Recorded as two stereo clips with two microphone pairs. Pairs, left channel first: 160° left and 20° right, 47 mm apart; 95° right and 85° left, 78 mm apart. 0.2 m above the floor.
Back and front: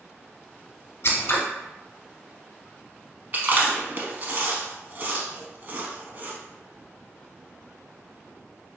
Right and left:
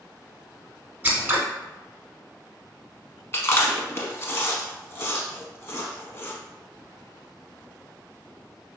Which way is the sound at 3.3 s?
55° right.